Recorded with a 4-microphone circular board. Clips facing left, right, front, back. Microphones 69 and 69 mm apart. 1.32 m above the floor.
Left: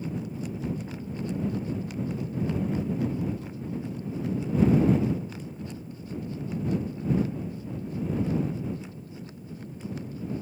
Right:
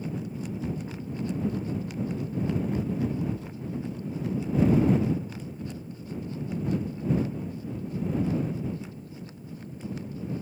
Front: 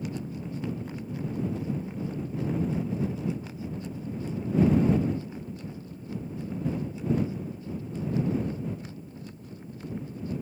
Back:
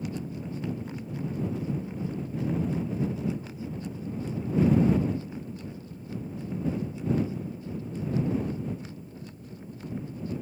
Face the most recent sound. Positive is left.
No sound to turn to.